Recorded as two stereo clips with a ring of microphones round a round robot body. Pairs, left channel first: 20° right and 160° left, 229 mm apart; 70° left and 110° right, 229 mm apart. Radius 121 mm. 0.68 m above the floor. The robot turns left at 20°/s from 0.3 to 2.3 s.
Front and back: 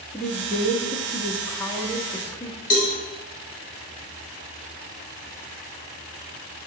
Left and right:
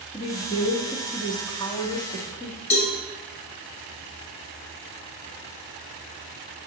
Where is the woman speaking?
65° left, 0.8 m; by 2.6 s 25° left, 0.8 m.